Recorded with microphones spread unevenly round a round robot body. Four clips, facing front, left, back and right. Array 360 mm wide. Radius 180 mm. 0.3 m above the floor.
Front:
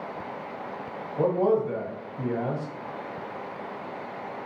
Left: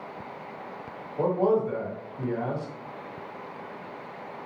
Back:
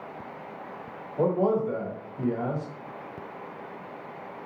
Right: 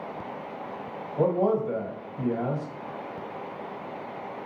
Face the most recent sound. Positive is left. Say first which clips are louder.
# even, front 1 dB
turn(degrees=-80)